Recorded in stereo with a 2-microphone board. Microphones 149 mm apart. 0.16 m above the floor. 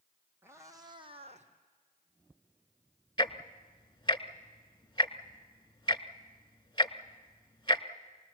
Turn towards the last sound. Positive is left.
turn(degrees=30)  # may be behind; listen again after turning